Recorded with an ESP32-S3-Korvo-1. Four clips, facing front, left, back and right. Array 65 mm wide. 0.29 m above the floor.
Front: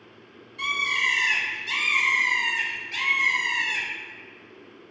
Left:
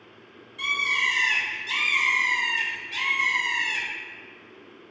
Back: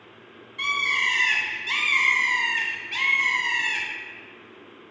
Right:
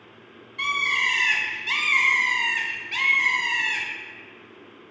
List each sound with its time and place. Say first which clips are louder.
0.6 s a bird: right 2 dB, back 1 dB; 115° right, 0.5 m